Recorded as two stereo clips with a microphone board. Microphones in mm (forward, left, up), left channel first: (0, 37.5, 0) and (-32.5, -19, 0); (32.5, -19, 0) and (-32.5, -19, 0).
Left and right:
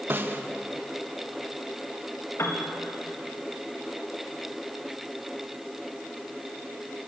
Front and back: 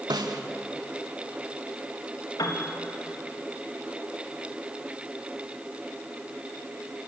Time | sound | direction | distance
0.1 | a snare drum | straight behind | 1.2 m
2.4 | a piano | 15° left | 1.9 m